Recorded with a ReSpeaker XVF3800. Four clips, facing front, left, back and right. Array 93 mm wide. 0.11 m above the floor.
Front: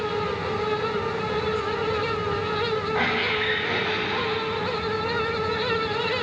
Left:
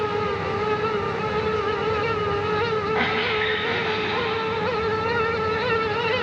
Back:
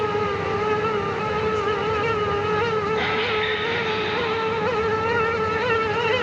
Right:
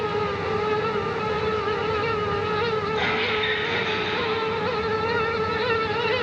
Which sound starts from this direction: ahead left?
A squeak, at 3.0 s.